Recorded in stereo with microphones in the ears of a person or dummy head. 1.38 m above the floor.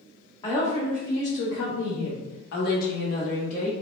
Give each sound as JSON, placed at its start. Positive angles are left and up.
{"t": 0.4, "sound": "a woman speaking", "side_deg": 35, "distance_m": 1.0}